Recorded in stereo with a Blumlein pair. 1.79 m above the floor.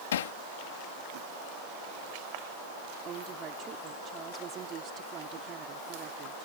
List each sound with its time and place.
0.1 s hammering: 60° left
3.0 s a woman speaking: 30° right